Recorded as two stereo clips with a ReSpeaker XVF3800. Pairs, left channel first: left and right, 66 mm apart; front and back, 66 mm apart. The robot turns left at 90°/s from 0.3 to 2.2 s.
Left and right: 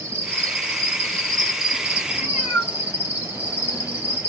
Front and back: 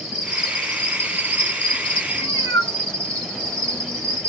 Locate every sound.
0.0 s an insect: 105° left, 1.6 m; by 4.3 s 65° right, 1.6 m
2.1 s a cat meowing: 20° left, 2 m; by 4.2 s 10° left, 2 m